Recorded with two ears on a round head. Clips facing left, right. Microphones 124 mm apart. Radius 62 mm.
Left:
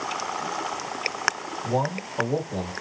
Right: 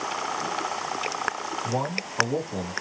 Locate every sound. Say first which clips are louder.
1.6 s a man speaking: left 5 dB; 35° left (ahead or behind), 1.6 m